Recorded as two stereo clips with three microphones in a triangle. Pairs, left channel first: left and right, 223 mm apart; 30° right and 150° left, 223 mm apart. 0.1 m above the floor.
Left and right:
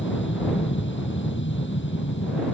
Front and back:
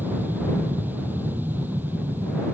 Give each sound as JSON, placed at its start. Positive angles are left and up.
{"t": 0.0, "sound": "an aircraft", "azimuth_deg": 70}